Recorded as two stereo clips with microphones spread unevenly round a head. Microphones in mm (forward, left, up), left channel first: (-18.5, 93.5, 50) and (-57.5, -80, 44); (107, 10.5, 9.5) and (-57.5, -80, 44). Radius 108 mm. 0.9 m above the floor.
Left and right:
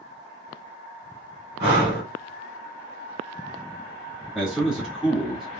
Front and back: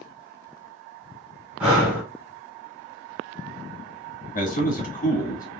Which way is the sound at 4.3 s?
15° right.